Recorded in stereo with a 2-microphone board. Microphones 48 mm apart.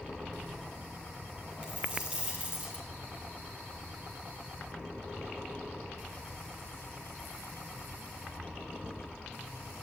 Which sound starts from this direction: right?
A dropped coin, at 1.6 s.